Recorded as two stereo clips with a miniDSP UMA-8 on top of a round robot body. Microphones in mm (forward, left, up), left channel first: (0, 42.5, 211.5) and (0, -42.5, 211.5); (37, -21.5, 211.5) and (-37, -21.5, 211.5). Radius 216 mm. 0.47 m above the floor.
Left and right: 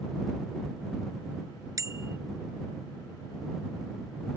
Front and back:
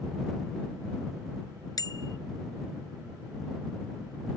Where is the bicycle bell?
40° right.